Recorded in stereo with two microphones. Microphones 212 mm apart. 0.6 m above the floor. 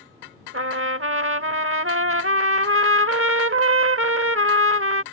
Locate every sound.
0.5 s a trumpet: 75° right (ahead or behind)